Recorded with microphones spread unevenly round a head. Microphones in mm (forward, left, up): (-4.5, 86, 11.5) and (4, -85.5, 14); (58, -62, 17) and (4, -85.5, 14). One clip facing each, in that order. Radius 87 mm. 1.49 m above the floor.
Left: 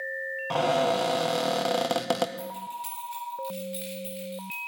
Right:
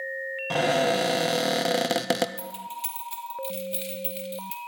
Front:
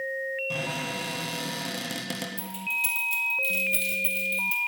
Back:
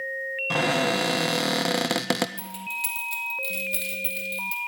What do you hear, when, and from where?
0.5 s a cupboard door: 160° right, 0.6 m
2.4 s keys jangling: 135° right, 2 m